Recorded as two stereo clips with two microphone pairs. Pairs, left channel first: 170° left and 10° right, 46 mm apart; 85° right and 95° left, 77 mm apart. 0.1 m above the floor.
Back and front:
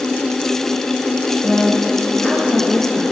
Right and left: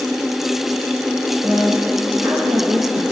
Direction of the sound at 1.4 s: 100° left.